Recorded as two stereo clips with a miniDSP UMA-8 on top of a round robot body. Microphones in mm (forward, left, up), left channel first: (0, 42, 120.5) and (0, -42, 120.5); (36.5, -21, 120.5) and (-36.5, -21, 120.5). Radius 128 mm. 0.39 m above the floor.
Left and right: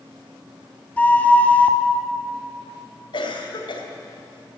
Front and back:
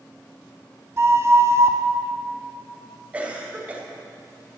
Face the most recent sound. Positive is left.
turn(degrees=110)